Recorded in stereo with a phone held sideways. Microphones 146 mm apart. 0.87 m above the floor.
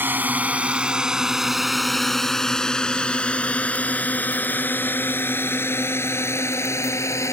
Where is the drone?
15° right (ahead or behind); by 7.3 s 20° left (ahead or behind).